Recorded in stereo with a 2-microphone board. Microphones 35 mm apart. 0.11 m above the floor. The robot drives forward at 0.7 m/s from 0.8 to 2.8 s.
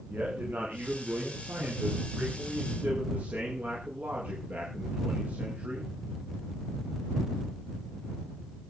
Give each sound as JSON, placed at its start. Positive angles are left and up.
{"t": 0.1, "sound": "a man speaking", "side_deg": -60, "distance_m": 9.0}